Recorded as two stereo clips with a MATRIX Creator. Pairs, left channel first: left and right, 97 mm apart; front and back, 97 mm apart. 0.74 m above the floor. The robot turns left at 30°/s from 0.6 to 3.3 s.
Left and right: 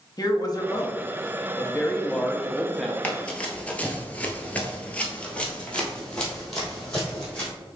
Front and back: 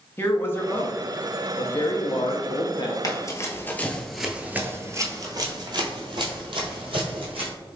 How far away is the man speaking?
About 0.6 m.